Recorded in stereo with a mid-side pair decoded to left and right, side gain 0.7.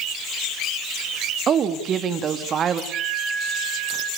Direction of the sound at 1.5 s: 40° right.